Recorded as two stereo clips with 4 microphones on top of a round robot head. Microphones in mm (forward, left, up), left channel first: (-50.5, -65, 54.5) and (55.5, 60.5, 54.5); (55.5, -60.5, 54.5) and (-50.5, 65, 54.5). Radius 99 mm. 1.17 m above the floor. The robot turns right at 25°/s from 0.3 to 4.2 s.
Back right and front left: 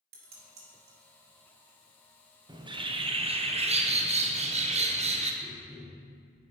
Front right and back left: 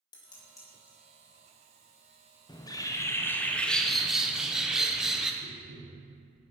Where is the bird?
Straight ahead, 0.8 m; by 5.3 s 45° left, 0.8 m.